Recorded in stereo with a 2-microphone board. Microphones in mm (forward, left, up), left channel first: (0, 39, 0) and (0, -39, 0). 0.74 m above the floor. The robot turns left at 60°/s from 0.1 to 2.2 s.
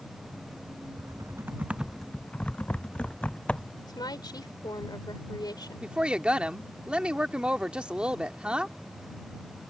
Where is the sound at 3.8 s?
65° left (ahead or behind).